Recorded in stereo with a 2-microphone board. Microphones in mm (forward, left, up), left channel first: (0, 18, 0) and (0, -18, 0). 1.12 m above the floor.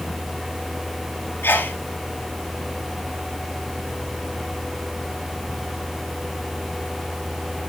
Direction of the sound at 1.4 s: 80° left.